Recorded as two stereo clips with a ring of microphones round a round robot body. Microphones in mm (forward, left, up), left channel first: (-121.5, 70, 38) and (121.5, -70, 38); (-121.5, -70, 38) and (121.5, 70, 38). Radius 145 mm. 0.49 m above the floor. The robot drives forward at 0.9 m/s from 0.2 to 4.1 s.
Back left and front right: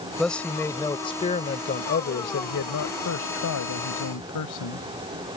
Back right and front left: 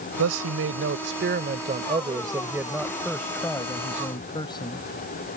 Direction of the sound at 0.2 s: 60° left.